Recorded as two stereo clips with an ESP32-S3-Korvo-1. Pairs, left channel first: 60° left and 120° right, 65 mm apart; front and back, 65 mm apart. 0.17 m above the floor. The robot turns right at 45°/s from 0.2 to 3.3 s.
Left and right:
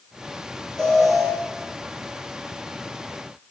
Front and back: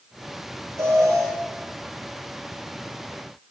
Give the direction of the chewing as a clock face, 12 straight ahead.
I don't hear chewing.